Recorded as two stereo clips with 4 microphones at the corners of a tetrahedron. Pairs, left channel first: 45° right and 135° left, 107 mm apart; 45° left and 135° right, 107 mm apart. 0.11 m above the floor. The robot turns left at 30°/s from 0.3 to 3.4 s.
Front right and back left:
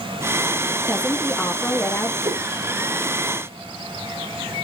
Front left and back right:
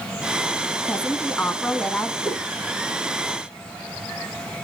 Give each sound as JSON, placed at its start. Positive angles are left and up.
{"t": 0.9, "sound": "a woman speaking", "azimuth_deg": 5, "distance_m": 1.5}
{"t": 2.2, "sound": "a whoosh", "azimuth_deg": 100, "distance_m": 6.0}